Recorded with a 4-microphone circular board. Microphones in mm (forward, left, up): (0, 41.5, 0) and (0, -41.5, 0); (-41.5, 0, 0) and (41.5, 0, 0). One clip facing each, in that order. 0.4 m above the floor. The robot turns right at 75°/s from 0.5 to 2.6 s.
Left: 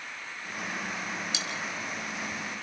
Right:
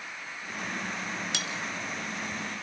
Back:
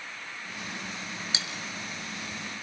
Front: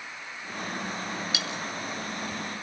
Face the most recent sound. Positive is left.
turn(degrees=-25)